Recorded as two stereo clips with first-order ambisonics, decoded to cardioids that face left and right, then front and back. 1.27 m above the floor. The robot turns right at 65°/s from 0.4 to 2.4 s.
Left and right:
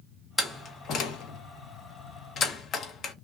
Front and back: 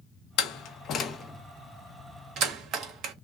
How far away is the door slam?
About 0.7 m.